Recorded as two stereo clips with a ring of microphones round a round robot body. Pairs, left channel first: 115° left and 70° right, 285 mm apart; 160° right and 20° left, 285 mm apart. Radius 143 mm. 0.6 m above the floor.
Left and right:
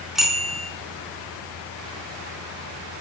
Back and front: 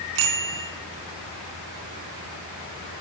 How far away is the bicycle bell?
About 4.5 m.